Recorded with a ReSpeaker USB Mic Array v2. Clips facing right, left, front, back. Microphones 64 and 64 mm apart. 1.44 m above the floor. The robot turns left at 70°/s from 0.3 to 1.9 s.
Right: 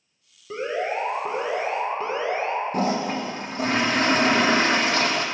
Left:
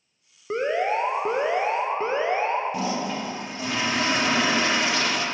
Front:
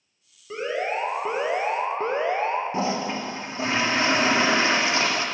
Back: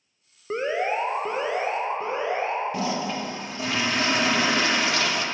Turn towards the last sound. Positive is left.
turn(degrees=-55)